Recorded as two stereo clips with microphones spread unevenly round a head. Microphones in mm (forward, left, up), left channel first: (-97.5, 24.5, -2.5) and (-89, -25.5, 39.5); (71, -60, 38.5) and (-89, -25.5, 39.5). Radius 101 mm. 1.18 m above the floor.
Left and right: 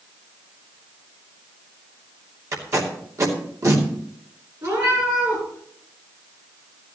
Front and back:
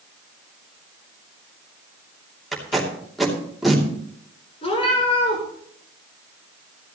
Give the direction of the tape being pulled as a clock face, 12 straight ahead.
3 o'clock.